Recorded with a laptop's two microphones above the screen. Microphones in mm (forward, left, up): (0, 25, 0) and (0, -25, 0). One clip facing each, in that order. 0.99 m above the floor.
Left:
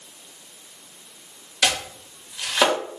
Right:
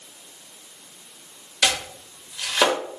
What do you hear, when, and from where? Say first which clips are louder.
1.6 s chopping: even; 5° left (ahead or behind), 1.3 m